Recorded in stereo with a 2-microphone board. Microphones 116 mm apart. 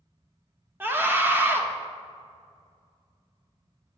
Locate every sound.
0.8 s a scream: 20° right (ahead or behind), 1.7 m